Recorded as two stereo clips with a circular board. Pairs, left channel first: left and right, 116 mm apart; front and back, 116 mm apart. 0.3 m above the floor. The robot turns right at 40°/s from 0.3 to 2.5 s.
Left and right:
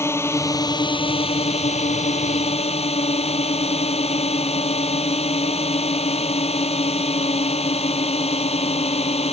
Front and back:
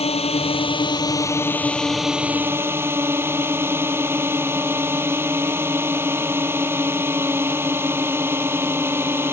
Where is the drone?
25° left; by 9.3 s 110° left.